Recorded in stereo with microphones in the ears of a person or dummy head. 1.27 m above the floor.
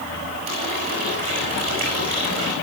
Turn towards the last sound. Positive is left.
turn(degrees=-50)  # may be behind; listen again after turning